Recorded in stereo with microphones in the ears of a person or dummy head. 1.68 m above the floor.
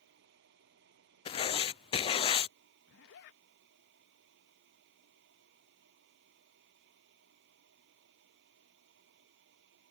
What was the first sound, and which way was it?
A fan, 65° right (ahead or behind).